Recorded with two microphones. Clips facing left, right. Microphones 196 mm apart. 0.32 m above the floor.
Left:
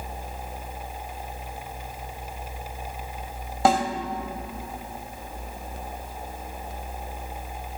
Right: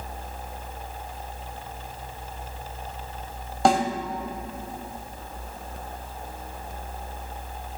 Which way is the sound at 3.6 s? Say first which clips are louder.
Even; 5° left (ahead or behind).